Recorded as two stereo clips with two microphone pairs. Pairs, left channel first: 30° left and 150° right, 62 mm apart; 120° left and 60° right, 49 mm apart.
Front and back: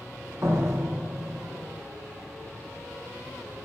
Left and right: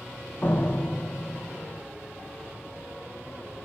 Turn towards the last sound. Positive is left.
turn(degrees=170)